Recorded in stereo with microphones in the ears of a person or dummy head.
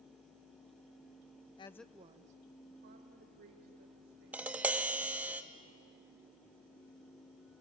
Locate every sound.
1.6 s a woman speaking: 25° left (ahead or behind), 0.6 m; by 5.3 s 50° right (ahead or behind), 4 m
4.3 s tapping: 10° right (ahead or behind), 0.7 m